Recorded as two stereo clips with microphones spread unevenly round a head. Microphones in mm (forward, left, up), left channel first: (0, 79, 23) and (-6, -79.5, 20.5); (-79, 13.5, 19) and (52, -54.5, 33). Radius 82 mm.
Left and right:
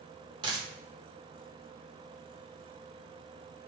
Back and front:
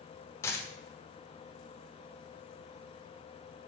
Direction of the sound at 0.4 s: 140° right.